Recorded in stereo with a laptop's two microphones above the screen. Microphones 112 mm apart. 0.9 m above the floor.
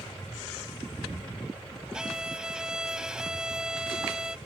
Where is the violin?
5° right (ahead or behind).